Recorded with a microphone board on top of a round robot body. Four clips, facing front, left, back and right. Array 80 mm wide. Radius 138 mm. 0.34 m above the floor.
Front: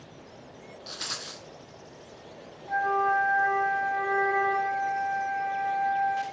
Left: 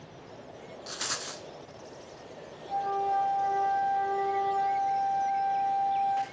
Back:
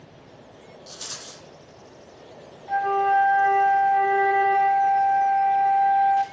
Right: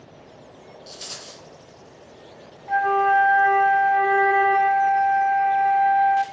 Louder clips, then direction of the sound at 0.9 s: Left 6 dB, front 4 dB; 65° left.